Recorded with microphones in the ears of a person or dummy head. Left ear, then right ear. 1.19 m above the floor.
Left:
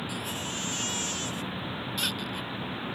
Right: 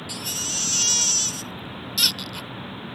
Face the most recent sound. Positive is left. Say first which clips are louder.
# right 6 dB
turn(degrees=-25)  # may be behind; listen again after turning